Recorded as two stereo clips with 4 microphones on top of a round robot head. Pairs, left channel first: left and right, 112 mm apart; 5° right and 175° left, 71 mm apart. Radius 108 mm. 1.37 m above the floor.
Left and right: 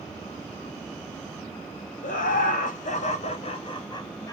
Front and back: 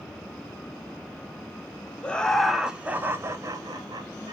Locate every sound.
2.0 s laughter: 70° left, 0.8 m; by 4.3 s 150° left, 1.1 m